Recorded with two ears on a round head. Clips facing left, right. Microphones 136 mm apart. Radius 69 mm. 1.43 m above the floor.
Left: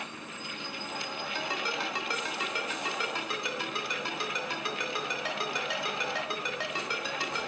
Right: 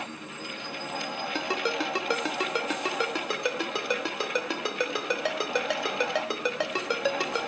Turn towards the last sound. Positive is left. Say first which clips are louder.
# right 6 dB
turn(degrees=-55)  # may be behind; listen again after turning